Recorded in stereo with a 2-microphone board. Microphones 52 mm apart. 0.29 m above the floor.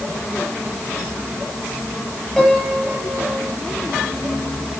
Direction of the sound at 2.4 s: 5° left (ahead or behind).